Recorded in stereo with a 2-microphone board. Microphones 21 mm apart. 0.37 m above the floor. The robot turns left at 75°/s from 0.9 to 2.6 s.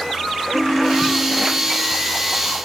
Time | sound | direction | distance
0.5 | a ringtone | 90° right | 1.9 m